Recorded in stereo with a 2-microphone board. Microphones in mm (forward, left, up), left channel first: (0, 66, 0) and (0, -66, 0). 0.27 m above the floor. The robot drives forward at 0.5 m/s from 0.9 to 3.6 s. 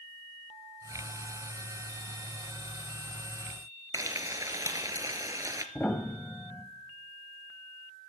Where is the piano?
10° left (ahead or behind), 1.3 m.